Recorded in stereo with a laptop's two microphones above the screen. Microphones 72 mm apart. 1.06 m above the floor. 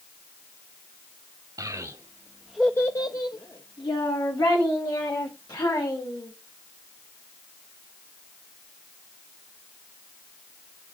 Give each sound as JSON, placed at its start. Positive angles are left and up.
{"t": 1.6, "sound": "a child speaking", "side_deg": -60, "distance_m": 1.2}